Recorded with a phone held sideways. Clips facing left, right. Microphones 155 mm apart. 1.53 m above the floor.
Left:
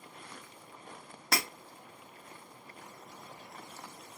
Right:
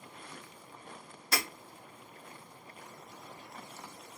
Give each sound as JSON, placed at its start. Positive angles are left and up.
{"t": 1.3, "sound": "breaking glass", "side_deg": 75, "distance_m": 2.5}